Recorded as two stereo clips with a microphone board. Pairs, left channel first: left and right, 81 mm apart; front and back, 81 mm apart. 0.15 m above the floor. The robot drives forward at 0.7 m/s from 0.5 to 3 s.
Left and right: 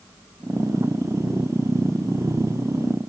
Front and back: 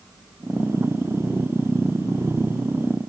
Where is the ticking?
No ticking in this recording.